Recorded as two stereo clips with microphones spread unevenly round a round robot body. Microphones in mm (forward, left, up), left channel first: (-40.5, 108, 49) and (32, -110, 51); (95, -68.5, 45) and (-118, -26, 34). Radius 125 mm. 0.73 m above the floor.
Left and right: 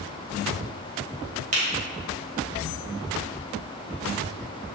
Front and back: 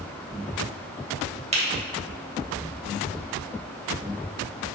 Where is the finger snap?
130° right, 2.5 m.